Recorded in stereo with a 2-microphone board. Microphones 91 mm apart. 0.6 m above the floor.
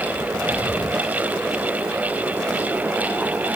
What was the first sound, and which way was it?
Only background noise.